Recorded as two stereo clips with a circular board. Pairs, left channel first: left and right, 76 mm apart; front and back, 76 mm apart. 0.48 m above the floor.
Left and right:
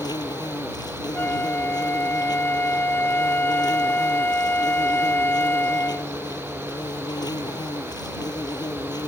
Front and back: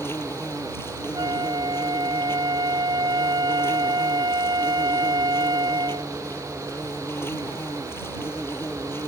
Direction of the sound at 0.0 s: 60° left.